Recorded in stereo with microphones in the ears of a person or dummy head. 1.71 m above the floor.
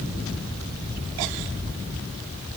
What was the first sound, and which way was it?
Only background noise.